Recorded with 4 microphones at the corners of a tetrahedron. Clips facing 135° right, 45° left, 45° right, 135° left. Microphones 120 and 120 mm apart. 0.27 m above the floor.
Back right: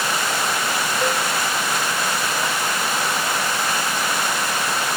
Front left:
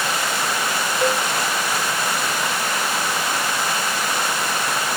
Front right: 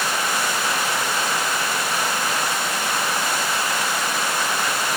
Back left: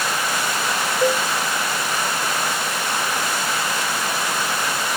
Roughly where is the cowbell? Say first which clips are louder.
Front left 3 dB, back left 6 dB; behind left.